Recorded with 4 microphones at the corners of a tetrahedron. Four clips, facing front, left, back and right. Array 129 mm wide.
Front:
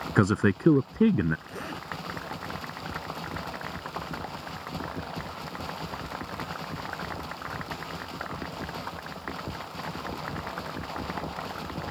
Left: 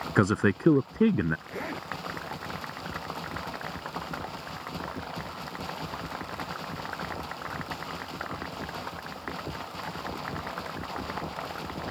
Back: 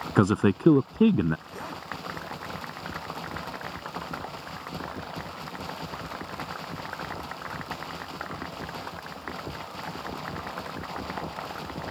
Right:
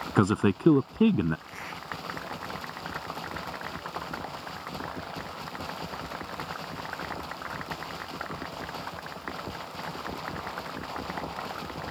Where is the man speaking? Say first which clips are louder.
Even, back 2 dB; 135° right.